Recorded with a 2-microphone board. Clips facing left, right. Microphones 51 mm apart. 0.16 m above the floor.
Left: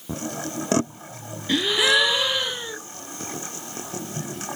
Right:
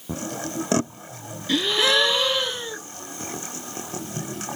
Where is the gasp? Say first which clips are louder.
Left 1 dB; 15° left (ahead or behind), 1.1 m.